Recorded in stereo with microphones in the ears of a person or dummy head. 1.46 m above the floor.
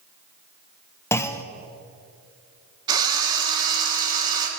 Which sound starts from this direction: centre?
A clunk, at 1.1 s.